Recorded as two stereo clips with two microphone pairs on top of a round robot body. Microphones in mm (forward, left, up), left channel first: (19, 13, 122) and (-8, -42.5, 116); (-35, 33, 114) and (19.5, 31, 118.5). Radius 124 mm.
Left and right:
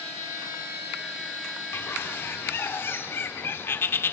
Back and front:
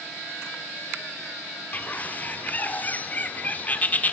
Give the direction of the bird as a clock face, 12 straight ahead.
8 o'clock.